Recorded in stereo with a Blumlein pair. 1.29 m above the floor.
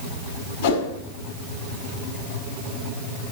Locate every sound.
0.6 s a whoosh: 50° left, 2.5 m